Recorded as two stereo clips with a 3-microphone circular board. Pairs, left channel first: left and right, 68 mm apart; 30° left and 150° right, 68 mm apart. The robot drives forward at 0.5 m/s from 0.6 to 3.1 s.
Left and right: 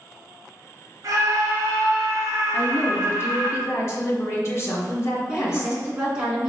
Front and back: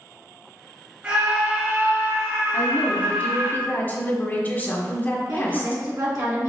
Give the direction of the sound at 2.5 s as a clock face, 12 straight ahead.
10 o'clock.